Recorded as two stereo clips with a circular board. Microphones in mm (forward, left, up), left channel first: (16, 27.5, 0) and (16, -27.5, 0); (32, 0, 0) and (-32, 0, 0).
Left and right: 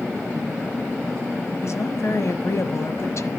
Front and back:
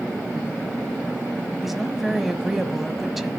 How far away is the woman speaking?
About 1.5 m.